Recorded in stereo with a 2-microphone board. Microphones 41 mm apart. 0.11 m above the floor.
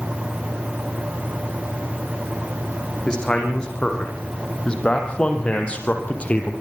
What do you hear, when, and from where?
3.1 s a man speaking: 15° left (ahead or behind), 6.5 m; by 6.5 s 30° left (ahead or behind), 3.5 m